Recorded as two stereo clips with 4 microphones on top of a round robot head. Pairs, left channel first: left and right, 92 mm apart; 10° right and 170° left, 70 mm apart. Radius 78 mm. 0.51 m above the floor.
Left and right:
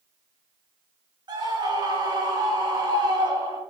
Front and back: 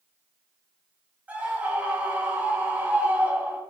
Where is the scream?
120° right, 2.5 m.